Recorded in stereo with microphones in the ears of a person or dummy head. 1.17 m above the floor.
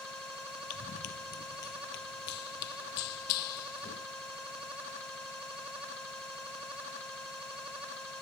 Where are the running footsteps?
40° left (ahead or behind); by 4.1 s 50° left (ahead or behind).